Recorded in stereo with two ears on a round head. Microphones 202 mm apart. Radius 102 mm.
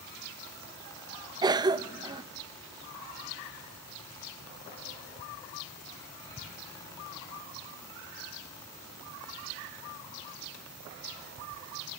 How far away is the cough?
About 1.1 m.